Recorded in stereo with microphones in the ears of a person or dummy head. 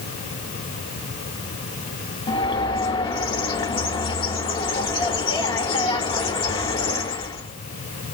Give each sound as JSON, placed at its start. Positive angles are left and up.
{"t": 2.3, "sound": "a bird", "side_deg": 20, "distance_m": 0.6}